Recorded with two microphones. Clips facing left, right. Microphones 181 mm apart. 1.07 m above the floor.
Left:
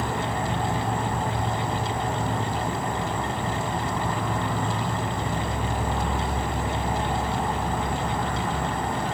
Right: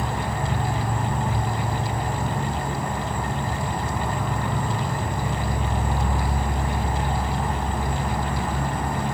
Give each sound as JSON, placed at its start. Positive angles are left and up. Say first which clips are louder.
{"t": 0.0, "sound": "an insect", "louder": "even", "side_deg": -20, "distance_m": 1.1}